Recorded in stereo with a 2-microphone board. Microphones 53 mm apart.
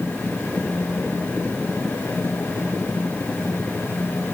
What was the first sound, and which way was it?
Only background noise.